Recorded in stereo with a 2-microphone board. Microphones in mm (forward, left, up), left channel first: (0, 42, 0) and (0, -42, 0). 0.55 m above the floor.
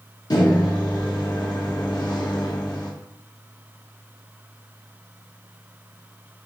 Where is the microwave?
50° left (ahead or behind), 0.7 m.